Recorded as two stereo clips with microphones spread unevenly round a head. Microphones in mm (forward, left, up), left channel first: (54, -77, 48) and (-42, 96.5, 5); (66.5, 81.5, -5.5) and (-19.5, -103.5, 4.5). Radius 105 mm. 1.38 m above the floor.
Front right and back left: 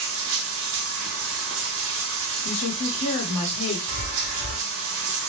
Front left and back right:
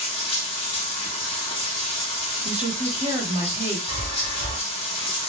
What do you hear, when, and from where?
0.0 s running water: 130° left, 0.8 m
2.5 s a woman speaking: 55° right, 1.5 m
3.9 s a chime: 65° right, 1.7 m